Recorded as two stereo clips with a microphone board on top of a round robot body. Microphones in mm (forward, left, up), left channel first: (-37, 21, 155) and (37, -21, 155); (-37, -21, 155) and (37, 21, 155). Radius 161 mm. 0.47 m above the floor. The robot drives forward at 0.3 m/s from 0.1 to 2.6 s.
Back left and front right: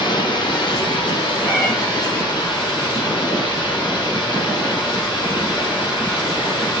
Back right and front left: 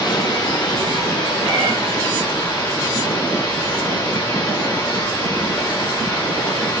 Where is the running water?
175° left, 1.0 m; by 6.8 s straight behind, 1.8 m.